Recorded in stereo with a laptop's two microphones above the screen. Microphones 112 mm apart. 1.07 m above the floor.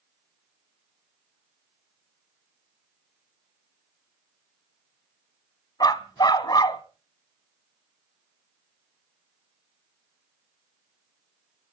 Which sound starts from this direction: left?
A dog barking, at 5.8 s.